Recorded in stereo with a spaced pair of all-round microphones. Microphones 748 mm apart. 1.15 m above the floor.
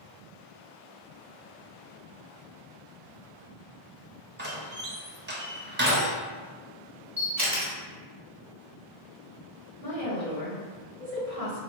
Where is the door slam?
15° right (ahead or behind), 0.5 m.